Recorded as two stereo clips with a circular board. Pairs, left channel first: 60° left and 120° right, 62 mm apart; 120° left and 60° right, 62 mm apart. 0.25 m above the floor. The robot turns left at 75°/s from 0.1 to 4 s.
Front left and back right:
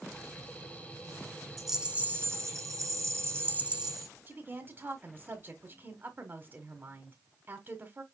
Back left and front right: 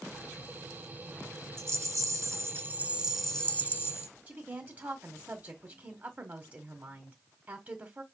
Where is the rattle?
25° right, 1.1 m; by 4.1 s 150° left, 1.1 m.